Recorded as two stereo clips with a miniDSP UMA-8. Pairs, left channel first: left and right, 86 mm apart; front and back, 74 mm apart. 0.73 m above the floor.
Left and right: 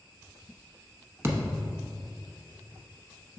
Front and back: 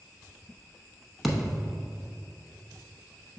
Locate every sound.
1.2 s a thud: 95° right, 0.7 m